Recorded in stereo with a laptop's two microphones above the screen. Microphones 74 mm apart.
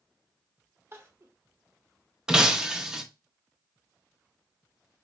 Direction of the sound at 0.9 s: 35° right (ahead or behind).